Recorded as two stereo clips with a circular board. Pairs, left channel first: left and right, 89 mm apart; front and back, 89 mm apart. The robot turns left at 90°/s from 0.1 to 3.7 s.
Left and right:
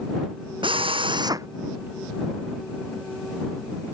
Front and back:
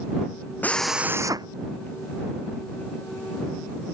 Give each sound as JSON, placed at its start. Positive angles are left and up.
{"t": 0.6, "sound": "a drill", "azimuth_deg": -70}